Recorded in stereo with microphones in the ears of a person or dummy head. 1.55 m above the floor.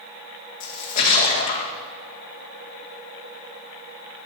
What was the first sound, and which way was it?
A splash, 40° left (ahead or behind).